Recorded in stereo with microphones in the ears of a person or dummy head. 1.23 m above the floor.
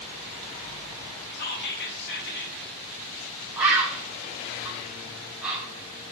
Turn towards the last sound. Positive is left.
turn(degrees=-5)  # may be behind; listen again after turning